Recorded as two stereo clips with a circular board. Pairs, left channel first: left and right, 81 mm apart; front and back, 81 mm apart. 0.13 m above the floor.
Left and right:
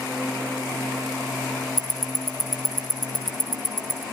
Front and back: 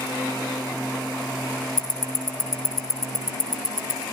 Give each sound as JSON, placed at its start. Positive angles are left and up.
{"t": 1.8, "sound": "ticking", "azimuth_deg": 55, "distance_m": 5.0}